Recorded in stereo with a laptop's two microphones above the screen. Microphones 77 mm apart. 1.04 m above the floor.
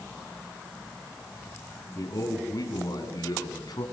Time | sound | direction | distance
1.9 | a man speaking | 50° left (ahead or behind) | 9.5 m